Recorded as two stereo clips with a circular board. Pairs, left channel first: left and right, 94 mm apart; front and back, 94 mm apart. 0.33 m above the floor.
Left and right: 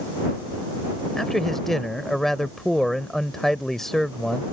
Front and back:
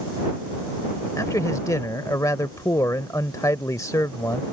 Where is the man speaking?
5° left.